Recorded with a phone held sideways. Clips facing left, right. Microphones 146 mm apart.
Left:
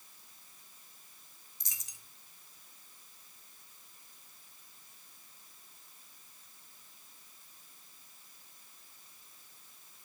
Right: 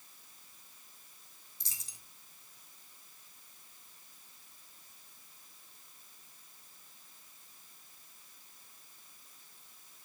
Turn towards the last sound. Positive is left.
turn(degrees=-35)  # may be behind; listen again after turning